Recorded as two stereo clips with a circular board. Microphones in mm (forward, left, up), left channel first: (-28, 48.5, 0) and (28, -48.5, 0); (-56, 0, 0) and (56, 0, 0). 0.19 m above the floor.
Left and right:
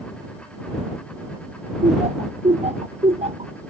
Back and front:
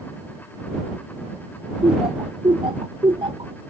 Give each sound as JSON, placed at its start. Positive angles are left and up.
{"t": 1.8, "sound": "laughter", "azimuth_deg": -40}